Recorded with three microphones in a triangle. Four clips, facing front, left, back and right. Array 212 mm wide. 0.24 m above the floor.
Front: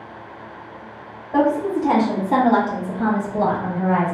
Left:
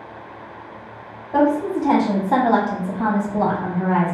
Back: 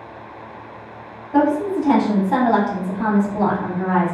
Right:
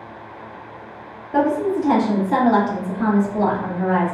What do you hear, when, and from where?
1.3 s a woman speaking: 45° left, 1.5 m; by 4.2 s 135° left, 1.7 m